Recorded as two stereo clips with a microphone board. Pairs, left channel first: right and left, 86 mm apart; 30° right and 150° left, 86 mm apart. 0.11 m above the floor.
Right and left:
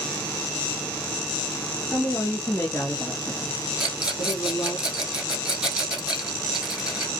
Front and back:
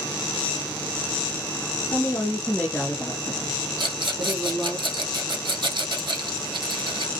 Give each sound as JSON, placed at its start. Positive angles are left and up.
{"t": 1.9, "sound": "a woman speaking", "azimuth_deg": -45, "distance_m": 1.3}
{"t": 3.8, "sound": "a rattle", "azimuth_deg": 175, "distance_m": 2.5}